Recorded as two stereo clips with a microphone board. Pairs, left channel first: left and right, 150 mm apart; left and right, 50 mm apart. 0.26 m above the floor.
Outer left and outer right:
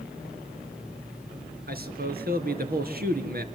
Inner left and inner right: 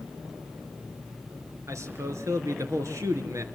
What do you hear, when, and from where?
1.7 s a man speaking: 75° right (ahead or behind), 4 m